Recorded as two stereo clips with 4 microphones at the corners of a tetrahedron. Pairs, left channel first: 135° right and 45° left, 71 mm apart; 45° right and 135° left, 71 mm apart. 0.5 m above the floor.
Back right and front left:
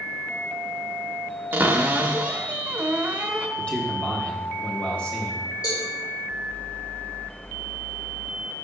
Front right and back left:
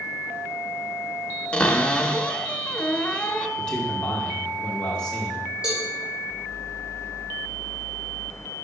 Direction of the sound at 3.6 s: 95° right.